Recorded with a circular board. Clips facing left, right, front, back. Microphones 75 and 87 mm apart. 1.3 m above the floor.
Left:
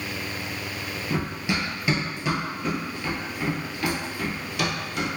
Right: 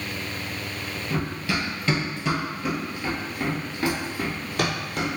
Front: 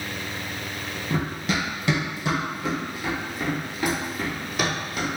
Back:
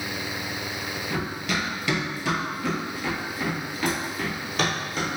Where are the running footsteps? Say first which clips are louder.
Even, front 3 dB; 40° left, 1.5 m; by 5.1 s 85° right, 1.8 m.